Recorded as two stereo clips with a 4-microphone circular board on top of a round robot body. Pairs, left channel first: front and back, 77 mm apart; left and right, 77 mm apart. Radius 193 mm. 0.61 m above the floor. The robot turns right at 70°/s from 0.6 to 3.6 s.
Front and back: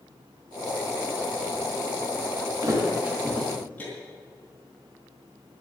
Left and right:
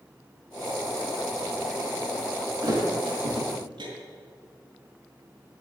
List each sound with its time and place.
2.6 s a thud: 140° right, 5 m; by 3.9 s 70° right, 5 m